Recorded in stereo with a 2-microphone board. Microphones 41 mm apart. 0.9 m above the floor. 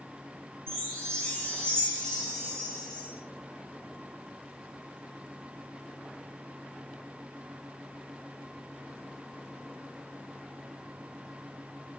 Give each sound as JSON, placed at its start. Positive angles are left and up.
{"t": 0.7, "sound": "a chime", "side_deg": 20, "distance_m": 2.0}